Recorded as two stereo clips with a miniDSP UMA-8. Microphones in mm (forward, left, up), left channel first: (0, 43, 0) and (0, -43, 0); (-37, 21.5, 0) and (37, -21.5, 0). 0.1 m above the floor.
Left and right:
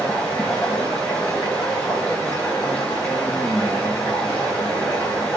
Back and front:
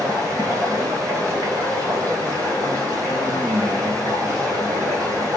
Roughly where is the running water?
Ahead.